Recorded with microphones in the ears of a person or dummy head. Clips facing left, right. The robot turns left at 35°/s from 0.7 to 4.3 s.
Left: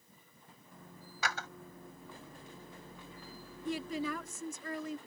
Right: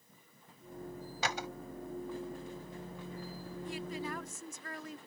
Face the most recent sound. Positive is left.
turn(degrees=70)  # may be behind; listen again after turning